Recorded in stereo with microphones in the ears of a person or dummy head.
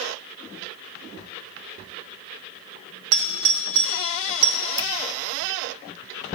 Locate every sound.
3.1 s a doorbell: 70° right (ahead or behind), 0.6 m
4.8 s dripping: 25° right (ahead or behind), 0.5 m